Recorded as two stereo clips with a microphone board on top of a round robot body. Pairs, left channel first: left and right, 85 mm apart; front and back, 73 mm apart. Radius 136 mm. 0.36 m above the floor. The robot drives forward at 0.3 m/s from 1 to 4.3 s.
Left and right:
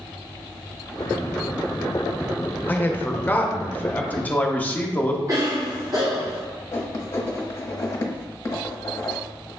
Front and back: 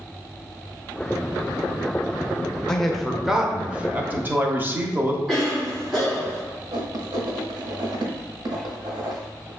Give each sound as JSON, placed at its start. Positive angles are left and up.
{"t": 2.7, "sound": "a man speaking", "azimuth_deg": 75, "distance_m": 0.9}
{"t": 5.3, "sound": "a cough", "azimuth_deg": -95, "distance_m": 1.8}
{"t": 6.7, "sound": "writing", "azimuth_deg": 145, "distance_m": 0.9}